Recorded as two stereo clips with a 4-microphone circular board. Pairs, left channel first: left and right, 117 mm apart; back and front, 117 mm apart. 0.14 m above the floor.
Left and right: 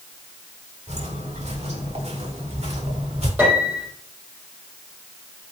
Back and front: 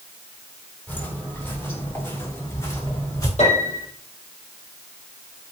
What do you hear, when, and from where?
0.9 s footsteps: 105° right, 8 m; by 3.3 s 115° right, 7.5 m
3.4 s a piano: 165° right, 6.5 m